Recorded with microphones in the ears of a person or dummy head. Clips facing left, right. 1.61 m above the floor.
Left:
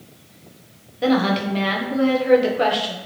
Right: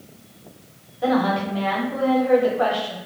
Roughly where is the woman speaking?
Left.